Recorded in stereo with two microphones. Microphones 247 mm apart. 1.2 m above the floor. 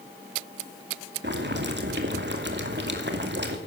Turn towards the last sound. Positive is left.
turn(degrees=-50)  # may be behind; listen again after turning